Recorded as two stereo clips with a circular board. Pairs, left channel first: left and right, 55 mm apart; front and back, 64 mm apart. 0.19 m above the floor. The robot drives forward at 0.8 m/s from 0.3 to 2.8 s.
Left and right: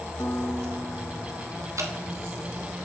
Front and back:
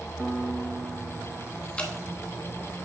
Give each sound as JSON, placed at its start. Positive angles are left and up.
{"t": 0.2, "sound": "a piano", "azimuth_deg": 100, "distance_m": 0.5}
{"t": 1.8, "sound": "dripping", "azimuth_deg": -70, "distance_m": 1.0}